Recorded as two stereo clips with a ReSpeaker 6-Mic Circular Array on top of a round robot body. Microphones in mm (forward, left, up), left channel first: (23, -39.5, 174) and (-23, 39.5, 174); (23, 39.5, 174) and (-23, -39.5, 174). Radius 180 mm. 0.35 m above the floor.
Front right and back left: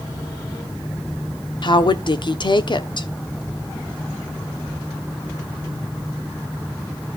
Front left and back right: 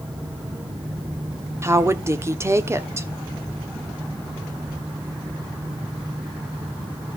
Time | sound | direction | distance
1.6 | a woman speaking | 65° right | 1.2 m